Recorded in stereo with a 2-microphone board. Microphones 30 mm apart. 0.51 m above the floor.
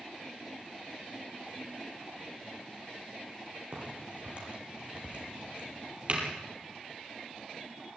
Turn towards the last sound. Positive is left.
turn(degrees=-35)  # may be behind; listen again after turning